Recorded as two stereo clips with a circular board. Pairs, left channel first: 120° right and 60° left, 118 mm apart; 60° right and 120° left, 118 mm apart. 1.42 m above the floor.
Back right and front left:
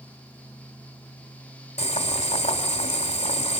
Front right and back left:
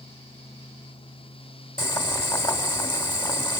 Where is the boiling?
110° right, 2.5 m.